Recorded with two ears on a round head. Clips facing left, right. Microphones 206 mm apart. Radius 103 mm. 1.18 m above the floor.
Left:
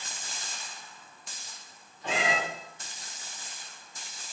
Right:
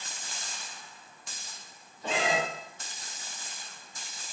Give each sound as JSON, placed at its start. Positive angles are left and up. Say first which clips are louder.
{"t": 2.0, "sound": "a cat meowing", "louder": "right 1 dB", "side_deg": -30, "distance_m": 1.0}